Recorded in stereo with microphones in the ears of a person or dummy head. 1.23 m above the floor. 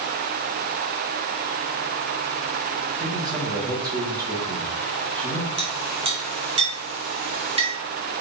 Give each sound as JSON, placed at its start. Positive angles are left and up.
{"t": 3.0, "sound": "a man speaking", "side_deg": -25, "distance_m": 1.9}
{"t": 5.6, "sound": "a clink", "side_deg": -30, "distance_m": 1.1}